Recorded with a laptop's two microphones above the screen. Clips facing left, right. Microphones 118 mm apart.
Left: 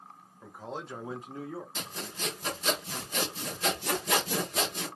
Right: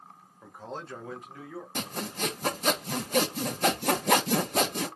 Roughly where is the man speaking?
Centre.